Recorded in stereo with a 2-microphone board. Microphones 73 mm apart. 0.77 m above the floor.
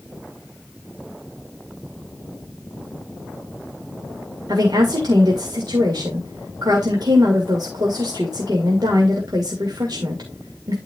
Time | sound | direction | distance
4.5 | a woman speaking | 70° right (ahead or behind) | 2 m